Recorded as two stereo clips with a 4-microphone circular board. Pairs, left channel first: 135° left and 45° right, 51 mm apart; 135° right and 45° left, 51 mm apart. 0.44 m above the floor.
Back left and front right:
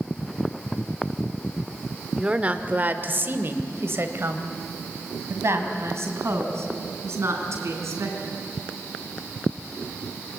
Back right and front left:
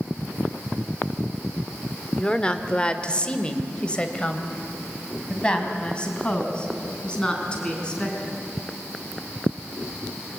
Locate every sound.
2.2 s a woman speaking: 90° right, 1.0 m; by 8.3 s 65° right, 5 m